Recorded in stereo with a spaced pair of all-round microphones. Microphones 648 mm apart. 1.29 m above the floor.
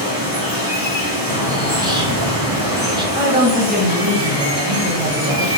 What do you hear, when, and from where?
0.0 s running water: 30° right (ahead or behind), 1.0 m
1.3 s a bird: 5° right (ahead or behind), 0.7 m
3.1 s a woman speaking: 15° right (ahead or behind), 0.8 m